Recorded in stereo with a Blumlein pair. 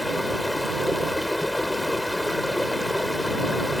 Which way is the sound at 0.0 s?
5° left.